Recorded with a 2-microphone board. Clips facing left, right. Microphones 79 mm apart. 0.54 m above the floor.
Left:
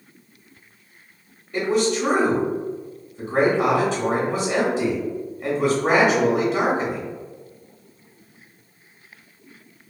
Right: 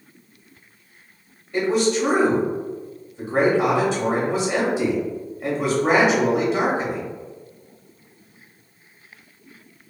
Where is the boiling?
I don't hear boiling.